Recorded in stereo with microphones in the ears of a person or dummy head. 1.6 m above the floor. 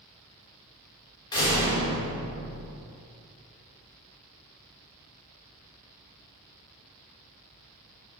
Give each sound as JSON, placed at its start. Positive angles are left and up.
{"t": 1.3, "sound": "a door slam", "side_deg": 30, "distance_m": 3.0}